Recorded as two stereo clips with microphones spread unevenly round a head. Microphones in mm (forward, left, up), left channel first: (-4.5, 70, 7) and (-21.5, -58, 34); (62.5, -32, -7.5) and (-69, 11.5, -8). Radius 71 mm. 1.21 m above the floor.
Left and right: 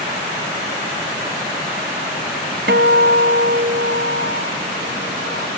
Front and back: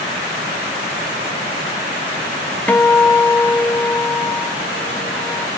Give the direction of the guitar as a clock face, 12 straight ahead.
3 o'clock.